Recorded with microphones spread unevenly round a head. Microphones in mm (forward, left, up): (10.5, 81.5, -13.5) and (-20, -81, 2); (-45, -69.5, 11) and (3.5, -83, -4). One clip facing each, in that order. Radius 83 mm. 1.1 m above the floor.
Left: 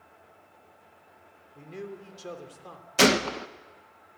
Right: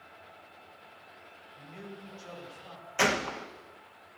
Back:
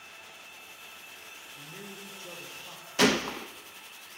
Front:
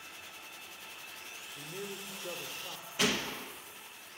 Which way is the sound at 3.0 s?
115° left.